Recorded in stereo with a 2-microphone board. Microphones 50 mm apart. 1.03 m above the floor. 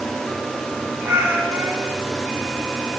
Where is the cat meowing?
75° right (ahead or behind), 7.5 m.